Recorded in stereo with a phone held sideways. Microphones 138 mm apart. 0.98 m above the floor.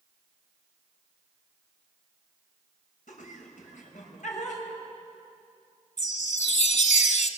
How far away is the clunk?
I don't hear a clunk.